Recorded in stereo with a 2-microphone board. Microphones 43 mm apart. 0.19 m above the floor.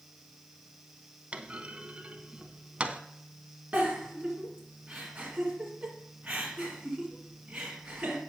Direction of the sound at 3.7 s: 25° right (ahead or behind).